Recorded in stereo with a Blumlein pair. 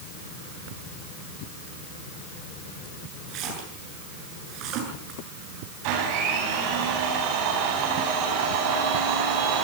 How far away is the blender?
About 9 m.